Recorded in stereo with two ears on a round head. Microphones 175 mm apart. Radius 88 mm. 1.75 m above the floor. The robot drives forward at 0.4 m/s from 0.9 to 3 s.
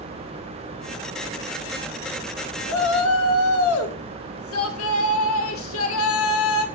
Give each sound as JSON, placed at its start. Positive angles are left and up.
{"t": 2.7, "sound": "a shout", "side_deg": 80, "distance_m": 2.0}